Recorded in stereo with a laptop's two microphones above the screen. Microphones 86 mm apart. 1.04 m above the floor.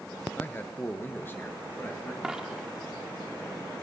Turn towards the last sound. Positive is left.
turn(degrees=-10)  # may be behind; listen again after turning